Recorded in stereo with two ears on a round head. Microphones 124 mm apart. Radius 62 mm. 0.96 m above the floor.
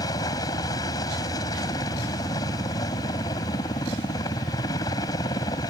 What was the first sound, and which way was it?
A helicopter, 25° left (ahead or behind).